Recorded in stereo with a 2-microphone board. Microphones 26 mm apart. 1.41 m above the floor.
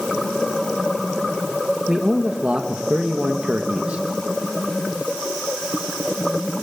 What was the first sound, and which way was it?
A man speaking, 55° right (ahead or behind).